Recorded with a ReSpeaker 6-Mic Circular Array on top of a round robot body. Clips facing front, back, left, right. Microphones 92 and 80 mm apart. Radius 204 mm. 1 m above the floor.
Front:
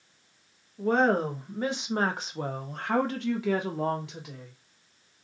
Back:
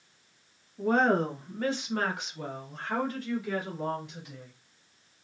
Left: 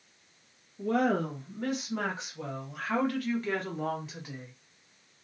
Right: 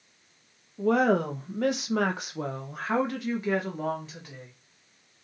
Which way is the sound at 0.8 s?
95° right.